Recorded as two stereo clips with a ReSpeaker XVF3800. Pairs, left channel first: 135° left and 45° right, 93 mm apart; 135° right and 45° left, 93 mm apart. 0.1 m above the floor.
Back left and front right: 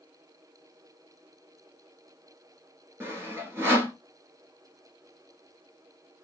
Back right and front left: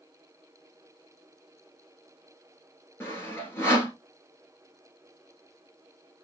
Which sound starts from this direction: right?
Sawing, at 3.0 s.